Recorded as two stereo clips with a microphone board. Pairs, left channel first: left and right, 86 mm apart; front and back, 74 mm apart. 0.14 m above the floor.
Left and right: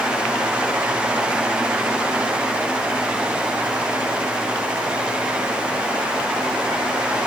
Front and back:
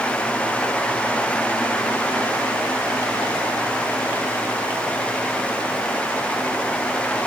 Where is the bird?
I don't hear a bird.